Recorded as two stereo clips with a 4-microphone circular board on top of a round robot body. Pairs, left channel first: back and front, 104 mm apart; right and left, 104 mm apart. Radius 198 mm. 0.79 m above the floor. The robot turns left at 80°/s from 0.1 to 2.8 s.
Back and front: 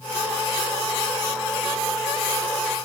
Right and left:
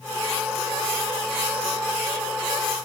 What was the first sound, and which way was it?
Only background noise.